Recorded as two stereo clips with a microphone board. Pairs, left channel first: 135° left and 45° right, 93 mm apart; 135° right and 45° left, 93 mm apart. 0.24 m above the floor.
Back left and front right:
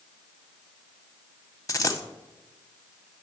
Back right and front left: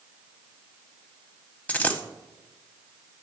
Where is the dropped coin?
160° left, 0.7 m.